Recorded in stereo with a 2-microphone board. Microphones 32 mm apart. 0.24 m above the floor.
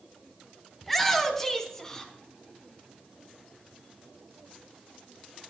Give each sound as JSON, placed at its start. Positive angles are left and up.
{"t": 0.8, "sound": "a shout", "side_deg": 5, "distance_m": 1.7}